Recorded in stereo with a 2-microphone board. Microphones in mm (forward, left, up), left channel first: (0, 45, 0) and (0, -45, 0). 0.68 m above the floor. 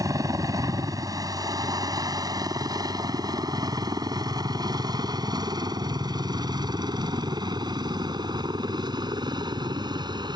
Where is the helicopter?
40° right (ahead or behind); by 10.4 s 55° right (ahead or behind).